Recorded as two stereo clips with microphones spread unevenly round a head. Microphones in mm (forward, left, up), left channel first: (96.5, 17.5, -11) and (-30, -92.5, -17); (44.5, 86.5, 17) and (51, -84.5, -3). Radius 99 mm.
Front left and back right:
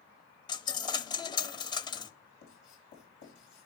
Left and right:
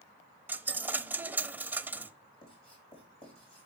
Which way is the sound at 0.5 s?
5° right.